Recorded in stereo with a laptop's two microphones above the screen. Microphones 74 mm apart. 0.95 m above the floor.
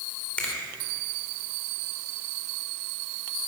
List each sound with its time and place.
0.4 s a finger snap: 15° left (ahead or behind), 2.5 m